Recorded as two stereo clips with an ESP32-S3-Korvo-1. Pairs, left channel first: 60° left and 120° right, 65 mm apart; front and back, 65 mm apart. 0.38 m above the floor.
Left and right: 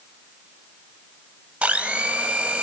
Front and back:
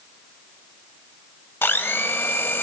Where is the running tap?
I don't hear a running tap.